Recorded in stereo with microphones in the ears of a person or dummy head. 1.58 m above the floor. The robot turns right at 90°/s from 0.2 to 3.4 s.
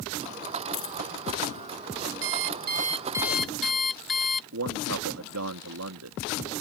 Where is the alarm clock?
95° right; by 4.4 s 10° left.